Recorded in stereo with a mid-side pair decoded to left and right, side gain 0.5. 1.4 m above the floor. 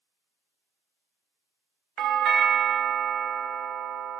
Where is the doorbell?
65° right, 0.6 m.